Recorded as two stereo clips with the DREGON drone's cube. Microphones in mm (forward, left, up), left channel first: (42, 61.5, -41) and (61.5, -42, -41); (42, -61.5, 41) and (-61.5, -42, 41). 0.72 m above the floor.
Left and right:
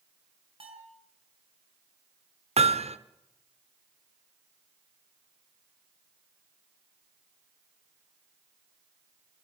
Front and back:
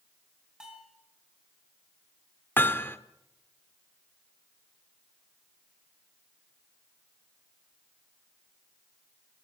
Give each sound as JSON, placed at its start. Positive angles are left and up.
{"t": 0.6, "sound": "a bell", "azimuth_deg": -110, "distance_m": 5.0}
{"t": 2.6, "sound": "hammering", "azimuth_deg": -85, "distance_m": 1.1}